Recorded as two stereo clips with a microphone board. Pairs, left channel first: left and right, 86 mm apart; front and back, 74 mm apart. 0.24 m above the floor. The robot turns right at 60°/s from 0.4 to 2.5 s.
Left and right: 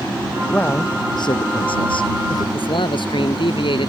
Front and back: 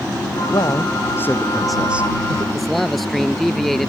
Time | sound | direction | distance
0.5 | a man speaking | 15° left | ?
2.5 | a man speaking | 85° left | ?